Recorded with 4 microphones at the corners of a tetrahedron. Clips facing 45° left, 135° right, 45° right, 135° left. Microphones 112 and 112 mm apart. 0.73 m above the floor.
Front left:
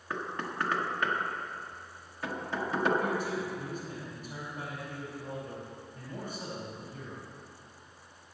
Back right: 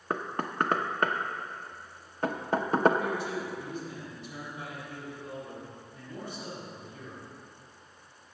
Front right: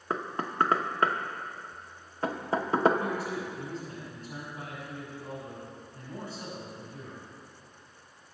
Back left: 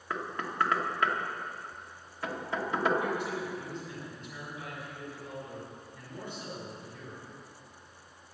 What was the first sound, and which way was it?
Knocking, 95° right.